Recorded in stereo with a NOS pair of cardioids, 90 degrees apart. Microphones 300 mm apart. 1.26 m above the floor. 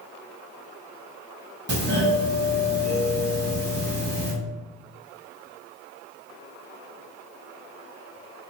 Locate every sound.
1.7 s a doorbell: 35° right, 1.7 m